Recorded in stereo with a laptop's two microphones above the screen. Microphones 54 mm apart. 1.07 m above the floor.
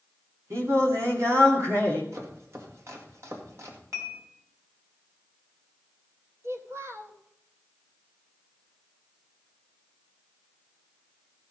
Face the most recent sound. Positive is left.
turn(degrees=-60)  # may be behind; listen again after turning